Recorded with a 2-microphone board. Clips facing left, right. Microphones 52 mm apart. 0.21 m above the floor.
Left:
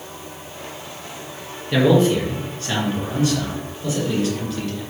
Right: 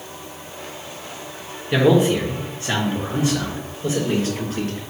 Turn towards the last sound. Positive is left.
turn(degrees=-40)  # may be behind; listen again after turning